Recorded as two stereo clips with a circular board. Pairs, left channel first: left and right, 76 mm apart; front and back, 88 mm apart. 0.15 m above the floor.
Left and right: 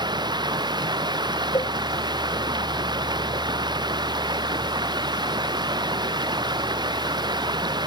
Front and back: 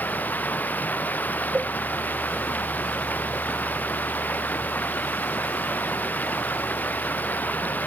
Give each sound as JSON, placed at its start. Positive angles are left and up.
{"t": 0.0, "sound": "running water", "azimuth_deg": -70}
{"t": 1.5, "sound": "a cowbell", "azimuth_deg": 105}